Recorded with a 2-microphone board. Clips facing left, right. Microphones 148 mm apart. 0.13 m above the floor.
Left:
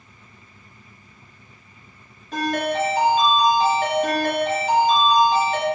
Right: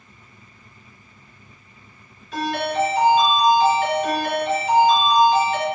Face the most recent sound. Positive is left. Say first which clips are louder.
# even
turn(degrees=45)  # may be behind; listen again after turning